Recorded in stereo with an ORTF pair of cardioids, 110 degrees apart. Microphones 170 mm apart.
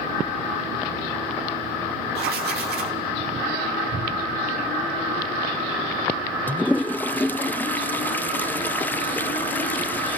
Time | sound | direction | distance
2.1 | writing | 70° right | 2.5 m
3.9 | a cupboard door | 55° right | 5 m
6.5 | a toilet flushing | 10° left | 0.5 m